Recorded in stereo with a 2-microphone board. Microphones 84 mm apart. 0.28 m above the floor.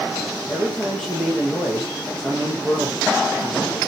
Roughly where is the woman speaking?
Centre.